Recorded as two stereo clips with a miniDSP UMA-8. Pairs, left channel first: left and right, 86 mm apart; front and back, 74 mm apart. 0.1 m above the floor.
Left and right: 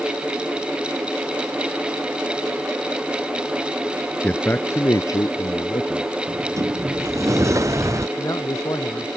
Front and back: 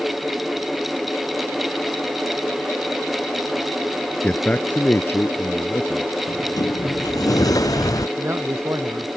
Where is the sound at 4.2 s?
40° left; by 6.1 s 55° left.